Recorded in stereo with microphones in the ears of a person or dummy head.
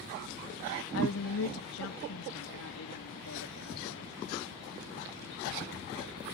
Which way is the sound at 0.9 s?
80° left.